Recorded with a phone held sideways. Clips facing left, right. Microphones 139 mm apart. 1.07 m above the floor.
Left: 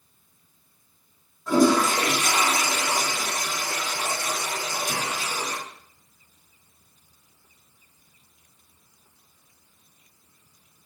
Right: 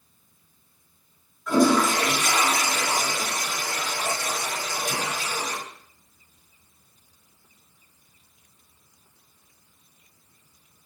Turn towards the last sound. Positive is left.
turn(degrees=40)  # may be behind; listen again after turning